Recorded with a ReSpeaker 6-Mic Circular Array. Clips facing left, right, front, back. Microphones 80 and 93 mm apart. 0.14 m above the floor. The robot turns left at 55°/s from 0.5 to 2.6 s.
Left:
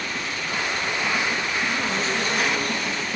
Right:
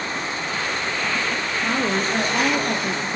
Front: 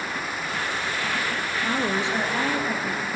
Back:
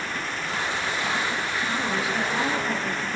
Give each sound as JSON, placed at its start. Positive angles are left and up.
{"t": 1.6, "sound": "a woman speaking", "azimuth_deg": -35, "distance_m": 2.5}